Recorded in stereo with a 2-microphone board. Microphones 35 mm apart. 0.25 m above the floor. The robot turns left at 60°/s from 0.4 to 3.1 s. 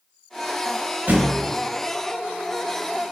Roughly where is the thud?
Right.